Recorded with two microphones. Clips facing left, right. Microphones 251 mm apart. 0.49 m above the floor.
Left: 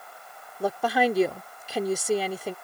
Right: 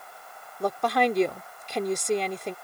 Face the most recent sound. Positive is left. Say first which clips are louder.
# left 1 dB
turn(degrees=5)  # may be behind; listen again after turning